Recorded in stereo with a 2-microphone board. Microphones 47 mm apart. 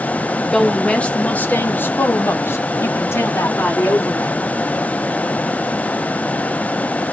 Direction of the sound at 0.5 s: 10° left (ahead or behind).